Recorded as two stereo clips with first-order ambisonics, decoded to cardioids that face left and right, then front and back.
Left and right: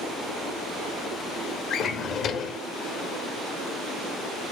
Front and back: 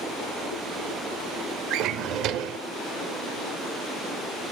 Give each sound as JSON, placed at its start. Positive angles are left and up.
{"t": 1.7, "sound": "a drawer", "azimuth_deg": 145, "distance_m": 0.8}